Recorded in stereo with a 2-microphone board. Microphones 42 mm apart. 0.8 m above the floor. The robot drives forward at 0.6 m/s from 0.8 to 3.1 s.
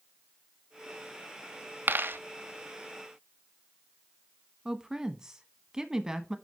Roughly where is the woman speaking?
Centre.